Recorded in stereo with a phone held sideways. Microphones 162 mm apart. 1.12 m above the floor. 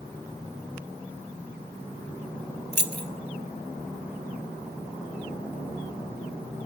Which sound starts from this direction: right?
Keys jangling, at 2.7 s.